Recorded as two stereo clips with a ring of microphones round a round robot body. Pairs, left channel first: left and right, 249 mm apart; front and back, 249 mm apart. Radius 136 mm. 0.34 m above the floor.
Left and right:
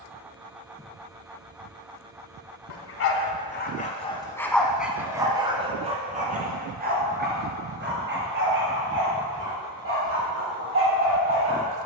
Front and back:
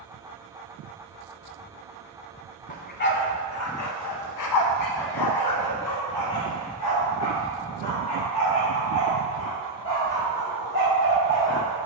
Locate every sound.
2.7 s a dog barking: 60° left, 1.1 m; by 11.8 s 50° right, 4 m